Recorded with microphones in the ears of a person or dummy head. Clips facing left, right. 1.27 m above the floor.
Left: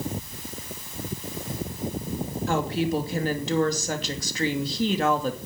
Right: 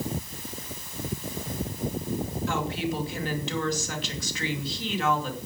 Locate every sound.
2.5 s a woman speaking: 35° left (ahead or behind), 2.5 m